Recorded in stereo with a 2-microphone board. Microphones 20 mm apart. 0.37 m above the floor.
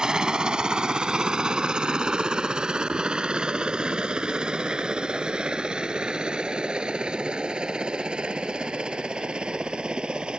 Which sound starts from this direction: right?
A helicopter, at 0.0 s.